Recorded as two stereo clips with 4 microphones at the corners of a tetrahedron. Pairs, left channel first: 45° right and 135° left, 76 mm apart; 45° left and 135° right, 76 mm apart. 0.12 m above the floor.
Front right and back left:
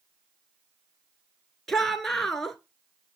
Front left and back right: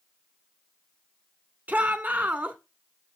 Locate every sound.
1.7 s a shout: 125° right, 1.1 m